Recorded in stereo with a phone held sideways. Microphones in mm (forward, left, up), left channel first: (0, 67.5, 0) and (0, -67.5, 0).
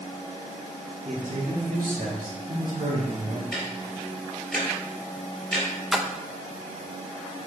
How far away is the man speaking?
About 1.5 m.